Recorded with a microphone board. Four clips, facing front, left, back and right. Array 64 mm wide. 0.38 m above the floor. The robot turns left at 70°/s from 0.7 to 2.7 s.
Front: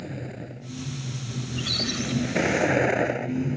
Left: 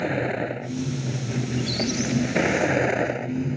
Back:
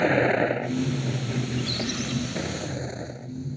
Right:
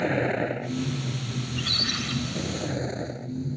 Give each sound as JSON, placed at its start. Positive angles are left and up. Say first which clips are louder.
{"t": 0.0, "sound": "a vehicle", "louder": "even, back 16 dB", "azimuth_deg": 180}
{"t": 1.4, "sound": "a squeak", "louder": "left 8 dB, back 2 dB", "azimuth_deg": -45}